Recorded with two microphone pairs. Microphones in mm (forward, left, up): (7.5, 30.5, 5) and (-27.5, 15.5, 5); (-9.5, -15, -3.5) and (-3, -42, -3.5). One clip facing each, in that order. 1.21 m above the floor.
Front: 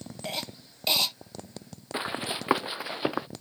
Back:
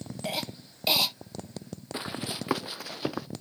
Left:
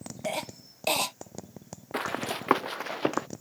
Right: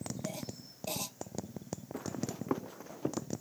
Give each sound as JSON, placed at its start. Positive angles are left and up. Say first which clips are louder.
{"t": 0.2, "sound": "a cough", "louder": "back 2 dB, left 8 dB", "azimuth_deg": 115}
{"t": 1.9, "sound": "running footsteps", "louder": "front 4 dB, left 10 dB", "azimuth_deg": 90}